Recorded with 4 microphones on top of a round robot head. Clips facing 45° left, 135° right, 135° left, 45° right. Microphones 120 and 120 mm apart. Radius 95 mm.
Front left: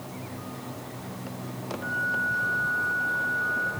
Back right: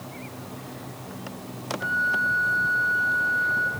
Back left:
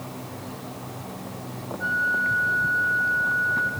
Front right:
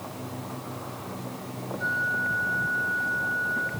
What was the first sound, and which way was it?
A flute, 120° right.